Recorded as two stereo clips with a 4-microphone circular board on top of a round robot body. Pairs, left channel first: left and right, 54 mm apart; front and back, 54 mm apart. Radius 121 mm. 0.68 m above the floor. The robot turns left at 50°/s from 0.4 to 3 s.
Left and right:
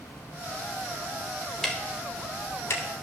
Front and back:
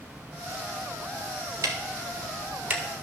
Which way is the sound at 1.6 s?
175° left.